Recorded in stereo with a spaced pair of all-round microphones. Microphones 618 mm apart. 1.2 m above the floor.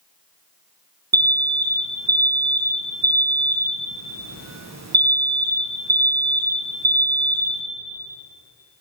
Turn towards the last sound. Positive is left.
turn(degrees=-30)  # may be behind; listen again after turning